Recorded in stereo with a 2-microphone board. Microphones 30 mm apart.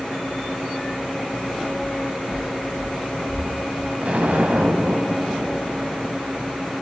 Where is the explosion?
55° right (ahead or behind), 0.6 m.